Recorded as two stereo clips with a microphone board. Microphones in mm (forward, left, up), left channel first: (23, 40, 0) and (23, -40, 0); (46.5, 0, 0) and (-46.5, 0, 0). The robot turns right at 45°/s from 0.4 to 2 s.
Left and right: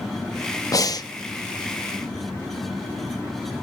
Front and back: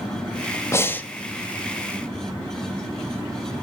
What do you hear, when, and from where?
0.7 s breathing: 55° left, 0.9 m; by 1.1 s 75° left, 0.9 m